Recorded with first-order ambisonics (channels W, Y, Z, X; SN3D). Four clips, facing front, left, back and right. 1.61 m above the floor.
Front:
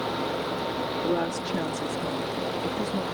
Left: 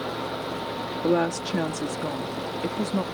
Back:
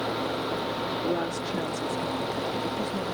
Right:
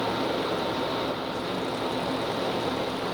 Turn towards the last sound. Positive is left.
turn(degrees=80)